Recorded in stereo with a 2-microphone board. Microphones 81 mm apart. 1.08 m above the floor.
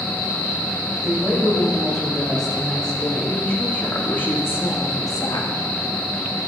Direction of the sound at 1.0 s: Centre (ahead or behind).